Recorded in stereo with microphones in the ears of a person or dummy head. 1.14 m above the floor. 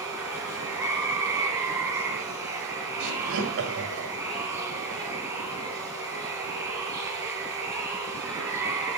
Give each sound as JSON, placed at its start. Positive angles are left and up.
{"t": 0.0, "sound": "running water", "side_deg": -15, "distance_m": 3.5}
{"t": 3.0, "sound": "laughter", "side_deg": -75, "distance_m": 6.0}